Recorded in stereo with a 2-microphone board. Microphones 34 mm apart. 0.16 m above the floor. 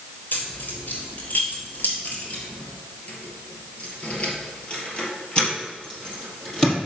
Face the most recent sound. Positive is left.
turn(degrees=20)  # may be behind; listen again after turning